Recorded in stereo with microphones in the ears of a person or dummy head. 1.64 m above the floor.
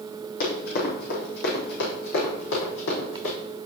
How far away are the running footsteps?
About 4 m.